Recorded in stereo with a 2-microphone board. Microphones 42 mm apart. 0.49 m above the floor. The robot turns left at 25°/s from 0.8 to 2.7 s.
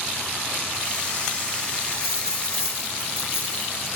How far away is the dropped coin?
About 5.5 m.